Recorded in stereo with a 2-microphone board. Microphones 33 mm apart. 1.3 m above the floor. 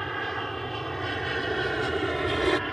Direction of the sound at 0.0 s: 5° left (ahead or behind).